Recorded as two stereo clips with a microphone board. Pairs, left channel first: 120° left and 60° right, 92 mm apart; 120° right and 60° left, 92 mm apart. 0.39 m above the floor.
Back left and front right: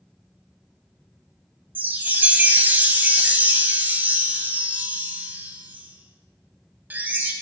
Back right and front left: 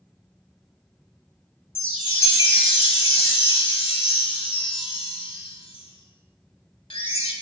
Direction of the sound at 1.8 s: 130° right.